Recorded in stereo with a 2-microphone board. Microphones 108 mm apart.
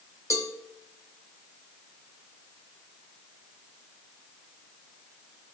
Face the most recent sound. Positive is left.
turn(degrees=30)  # may be behind; listen again after turning